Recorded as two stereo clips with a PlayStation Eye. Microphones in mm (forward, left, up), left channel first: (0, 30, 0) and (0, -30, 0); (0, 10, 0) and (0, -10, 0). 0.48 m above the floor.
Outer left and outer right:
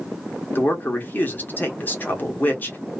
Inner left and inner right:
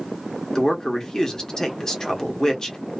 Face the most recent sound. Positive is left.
turn(degrees=30)  # may be behind; listen again after turning